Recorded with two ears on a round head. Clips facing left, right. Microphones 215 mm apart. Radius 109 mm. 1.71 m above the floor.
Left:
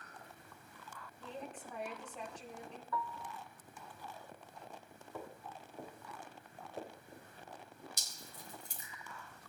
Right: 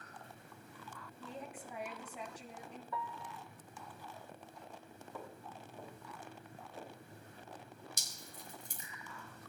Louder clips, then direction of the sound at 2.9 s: Left 3 dB; 15° right (ahead or behind).